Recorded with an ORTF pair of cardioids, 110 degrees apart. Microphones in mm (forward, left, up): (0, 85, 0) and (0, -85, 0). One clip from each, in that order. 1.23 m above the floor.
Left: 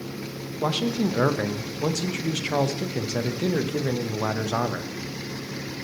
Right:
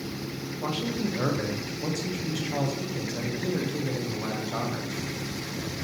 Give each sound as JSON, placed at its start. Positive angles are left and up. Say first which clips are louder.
{"t": 0.6, "sound": "a man speaking", "louder": "left 6 dB", "azimuth_deg": 40, "distance_m": 0.6}